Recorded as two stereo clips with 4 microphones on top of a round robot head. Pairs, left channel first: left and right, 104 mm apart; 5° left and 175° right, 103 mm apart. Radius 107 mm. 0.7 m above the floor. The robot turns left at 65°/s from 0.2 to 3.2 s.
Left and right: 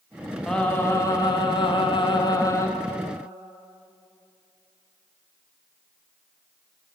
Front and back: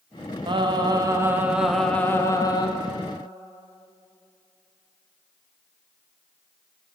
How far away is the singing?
About 0.7 m.